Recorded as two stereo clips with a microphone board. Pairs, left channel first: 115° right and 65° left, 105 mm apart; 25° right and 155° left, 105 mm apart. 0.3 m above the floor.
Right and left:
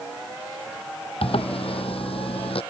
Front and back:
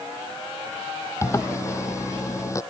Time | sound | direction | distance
1.2 | a zipper | 85° right | ?